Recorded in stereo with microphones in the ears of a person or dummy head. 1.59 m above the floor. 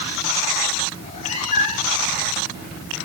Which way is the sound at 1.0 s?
40° left (ahead or behind).